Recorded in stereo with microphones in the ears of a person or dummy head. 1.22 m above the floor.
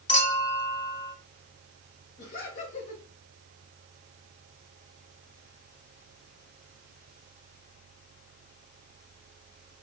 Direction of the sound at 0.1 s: 35° left (ahead or behind).